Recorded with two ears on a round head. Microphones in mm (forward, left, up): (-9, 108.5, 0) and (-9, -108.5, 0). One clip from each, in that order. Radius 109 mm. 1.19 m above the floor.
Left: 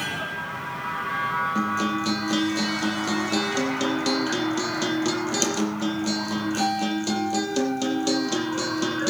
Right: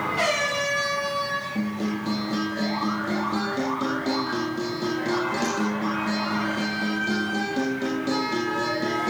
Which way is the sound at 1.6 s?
65° left (ahead or behind).